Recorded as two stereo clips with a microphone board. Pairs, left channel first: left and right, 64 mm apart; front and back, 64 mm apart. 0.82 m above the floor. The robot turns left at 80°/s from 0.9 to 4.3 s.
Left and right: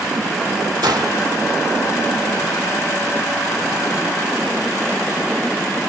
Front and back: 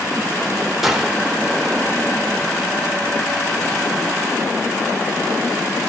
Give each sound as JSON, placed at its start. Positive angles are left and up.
{"t": 0.8, "sound": "a gunshot", "azimuth_deg": -95, "distance_m": 1.9}